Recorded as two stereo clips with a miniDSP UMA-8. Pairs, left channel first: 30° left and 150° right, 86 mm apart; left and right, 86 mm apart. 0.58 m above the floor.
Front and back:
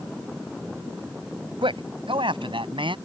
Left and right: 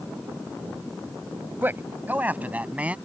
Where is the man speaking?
155° right; by 3.0 s 165° right.